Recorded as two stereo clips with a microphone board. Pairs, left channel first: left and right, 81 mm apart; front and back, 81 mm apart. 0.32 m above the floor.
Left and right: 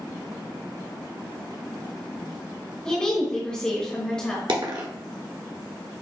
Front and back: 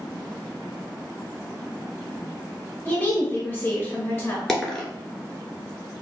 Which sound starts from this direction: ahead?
A woman speaking, at 2.9 s.